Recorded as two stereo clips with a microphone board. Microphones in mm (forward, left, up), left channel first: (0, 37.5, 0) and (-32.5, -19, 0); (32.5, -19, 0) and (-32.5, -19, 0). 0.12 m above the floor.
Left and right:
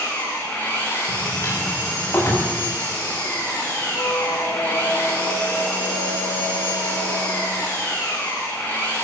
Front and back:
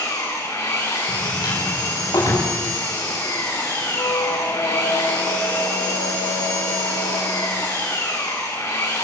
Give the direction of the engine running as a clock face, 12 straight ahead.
12 o'clock.